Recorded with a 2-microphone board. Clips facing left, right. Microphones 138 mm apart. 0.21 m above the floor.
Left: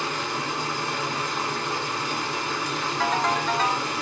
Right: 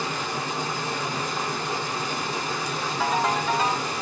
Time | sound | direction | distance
0.0 | running water | 15° right (ahead or behind) | 2 m
3.0 | a ringtone | 5° right (ahead or behind) | 0.6 m